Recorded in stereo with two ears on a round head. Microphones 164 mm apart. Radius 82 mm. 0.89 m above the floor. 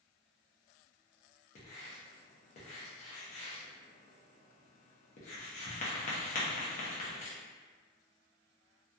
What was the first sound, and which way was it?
Writing, 40° left (ahead or behind).